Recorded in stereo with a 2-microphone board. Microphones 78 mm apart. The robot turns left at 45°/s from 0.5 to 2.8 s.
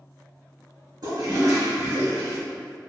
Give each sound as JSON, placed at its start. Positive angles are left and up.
{"t": 1.0, "sound": "a toilet flushing", "azimuth_deg": -100, "distance_m": 1.7}